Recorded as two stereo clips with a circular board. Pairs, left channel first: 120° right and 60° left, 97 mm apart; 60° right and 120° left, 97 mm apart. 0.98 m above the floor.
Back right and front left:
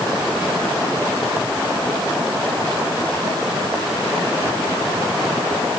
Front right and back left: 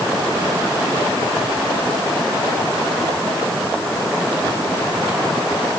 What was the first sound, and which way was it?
Only background noise.